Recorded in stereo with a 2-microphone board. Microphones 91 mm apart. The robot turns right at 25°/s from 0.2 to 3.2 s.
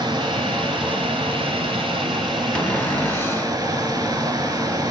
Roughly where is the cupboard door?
Centre.